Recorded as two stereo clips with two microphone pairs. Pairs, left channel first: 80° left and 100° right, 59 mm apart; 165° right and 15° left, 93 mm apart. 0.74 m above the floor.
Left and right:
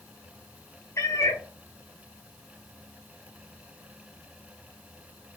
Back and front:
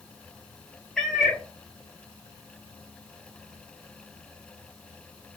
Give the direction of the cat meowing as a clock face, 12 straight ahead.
8 o'clock.